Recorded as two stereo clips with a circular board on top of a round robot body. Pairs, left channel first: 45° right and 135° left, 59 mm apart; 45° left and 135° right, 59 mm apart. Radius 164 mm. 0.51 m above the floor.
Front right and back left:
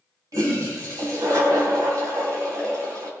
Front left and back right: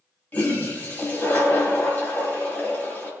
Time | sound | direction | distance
0.3 | a toilet flushing | 105° left | 3.5 m